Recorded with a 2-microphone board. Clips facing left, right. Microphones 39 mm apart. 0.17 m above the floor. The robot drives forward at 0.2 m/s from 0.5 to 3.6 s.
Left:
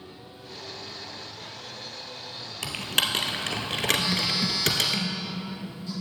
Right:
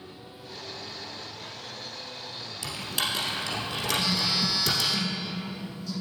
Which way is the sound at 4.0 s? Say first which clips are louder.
Even; 35° left (ahead or behind).